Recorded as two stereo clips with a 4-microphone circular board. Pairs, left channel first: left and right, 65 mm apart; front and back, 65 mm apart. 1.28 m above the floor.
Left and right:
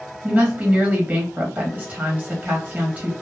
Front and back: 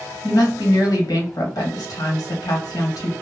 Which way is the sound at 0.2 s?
20° right.